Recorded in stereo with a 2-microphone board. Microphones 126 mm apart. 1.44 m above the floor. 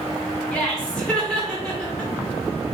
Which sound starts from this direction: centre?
Laughter, at 0.5 s.